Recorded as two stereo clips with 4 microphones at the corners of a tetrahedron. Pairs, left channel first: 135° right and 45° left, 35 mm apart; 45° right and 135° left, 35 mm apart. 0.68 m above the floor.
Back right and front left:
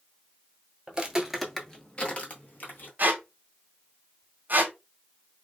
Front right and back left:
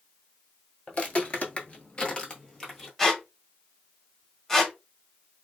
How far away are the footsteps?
About 0.9 m.